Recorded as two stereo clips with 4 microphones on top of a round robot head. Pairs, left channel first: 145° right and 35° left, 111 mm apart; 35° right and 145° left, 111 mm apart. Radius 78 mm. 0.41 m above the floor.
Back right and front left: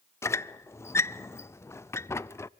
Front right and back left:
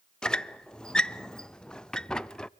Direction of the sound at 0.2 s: 110° right.